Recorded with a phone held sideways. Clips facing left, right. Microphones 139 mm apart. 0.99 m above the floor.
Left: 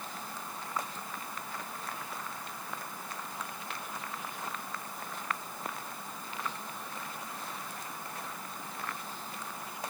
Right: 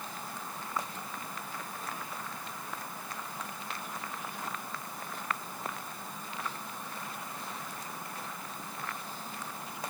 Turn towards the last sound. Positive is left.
No sound to turn to.